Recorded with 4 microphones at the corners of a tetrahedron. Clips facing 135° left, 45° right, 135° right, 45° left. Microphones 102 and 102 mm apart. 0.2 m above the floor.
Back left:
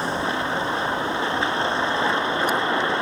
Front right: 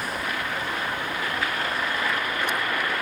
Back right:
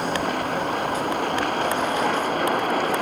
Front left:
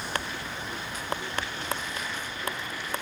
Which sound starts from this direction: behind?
A vehicle, at 0.0 s.